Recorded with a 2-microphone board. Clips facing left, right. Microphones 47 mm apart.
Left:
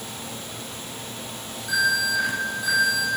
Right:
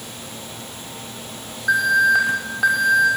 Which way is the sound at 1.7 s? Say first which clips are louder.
Right 7 dB; 65° right (ahead or behind).